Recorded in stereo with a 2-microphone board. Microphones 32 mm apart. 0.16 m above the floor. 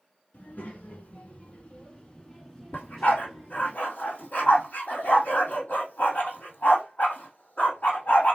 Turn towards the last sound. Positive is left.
turn(degrees=55)  # may be behind; listen again after turning